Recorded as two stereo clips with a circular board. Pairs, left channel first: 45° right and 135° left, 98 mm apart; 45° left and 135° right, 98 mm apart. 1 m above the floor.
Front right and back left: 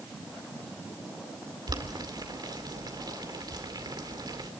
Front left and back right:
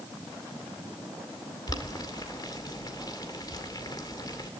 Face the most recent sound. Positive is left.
turn(degrees=90)